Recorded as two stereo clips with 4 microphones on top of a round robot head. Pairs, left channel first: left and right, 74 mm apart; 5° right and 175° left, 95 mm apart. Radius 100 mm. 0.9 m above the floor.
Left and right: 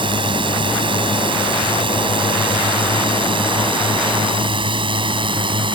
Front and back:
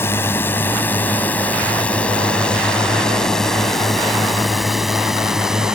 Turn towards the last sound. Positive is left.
turn(degrees=-100)